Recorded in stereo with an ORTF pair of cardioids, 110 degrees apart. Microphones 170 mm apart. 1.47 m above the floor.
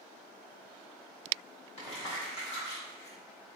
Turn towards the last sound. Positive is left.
turn(degrees=35)